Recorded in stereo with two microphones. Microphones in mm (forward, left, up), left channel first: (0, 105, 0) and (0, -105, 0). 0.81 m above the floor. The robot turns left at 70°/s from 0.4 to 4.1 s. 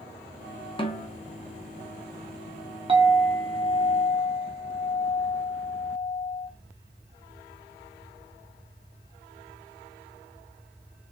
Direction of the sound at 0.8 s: 25° left (ahead or behind).